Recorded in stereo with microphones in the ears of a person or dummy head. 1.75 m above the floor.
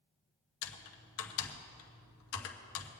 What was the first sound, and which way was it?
Typing on a keyboard, 80° left.